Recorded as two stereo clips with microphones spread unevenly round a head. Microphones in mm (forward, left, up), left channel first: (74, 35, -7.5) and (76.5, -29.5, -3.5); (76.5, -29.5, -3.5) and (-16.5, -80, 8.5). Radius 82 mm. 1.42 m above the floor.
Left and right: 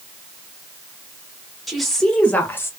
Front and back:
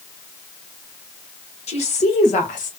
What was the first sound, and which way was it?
A woman speaking, straight ahead.